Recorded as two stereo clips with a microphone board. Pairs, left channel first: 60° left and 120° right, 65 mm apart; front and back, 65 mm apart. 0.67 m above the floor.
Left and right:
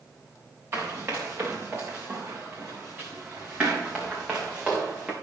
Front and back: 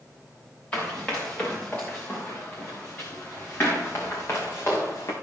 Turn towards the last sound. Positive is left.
turn(degrees=-45)